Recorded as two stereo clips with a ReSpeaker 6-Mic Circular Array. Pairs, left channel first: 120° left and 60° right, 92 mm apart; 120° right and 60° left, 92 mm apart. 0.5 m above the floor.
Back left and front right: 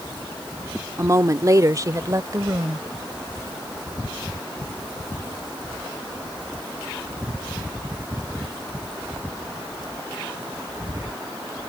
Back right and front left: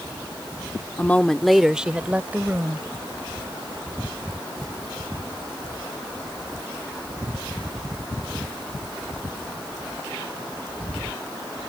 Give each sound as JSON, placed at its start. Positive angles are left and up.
{"t": 1.0, "sound": "a woman speaking", "azimuth_deg": -70}